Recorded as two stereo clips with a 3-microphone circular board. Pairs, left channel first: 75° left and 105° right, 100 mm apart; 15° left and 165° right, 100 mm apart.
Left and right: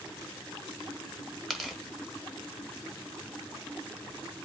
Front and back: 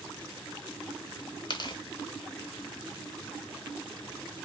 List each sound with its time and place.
1.5 s tearing paper: 15° right, 0.5 m